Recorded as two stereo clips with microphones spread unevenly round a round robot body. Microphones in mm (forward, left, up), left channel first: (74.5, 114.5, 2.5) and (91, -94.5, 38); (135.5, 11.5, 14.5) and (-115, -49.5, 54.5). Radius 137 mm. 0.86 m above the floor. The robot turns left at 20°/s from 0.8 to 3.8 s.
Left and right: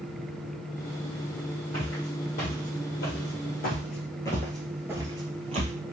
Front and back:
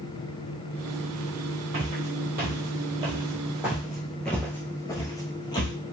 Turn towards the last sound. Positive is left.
turn(degrees=-65)